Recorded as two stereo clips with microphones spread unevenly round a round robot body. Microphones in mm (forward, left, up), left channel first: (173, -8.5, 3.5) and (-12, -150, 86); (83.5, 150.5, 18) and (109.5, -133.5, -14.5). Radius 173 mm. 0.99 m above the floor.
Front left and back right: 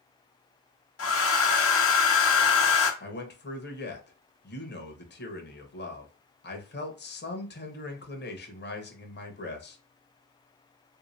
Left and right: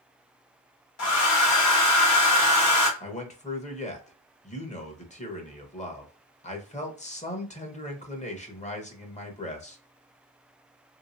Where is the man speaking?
25° left, 1.2 m.